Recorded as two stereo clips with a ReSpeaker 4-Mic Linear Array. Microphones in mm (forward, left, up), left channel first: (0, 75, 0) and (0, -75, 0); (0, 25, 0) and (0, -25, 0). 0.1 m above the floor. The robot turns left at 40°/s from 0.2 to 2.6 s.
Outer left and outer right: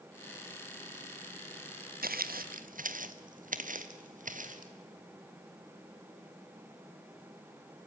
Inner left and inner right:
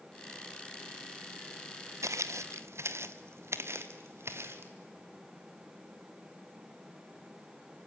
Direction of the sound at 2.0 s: 85° right.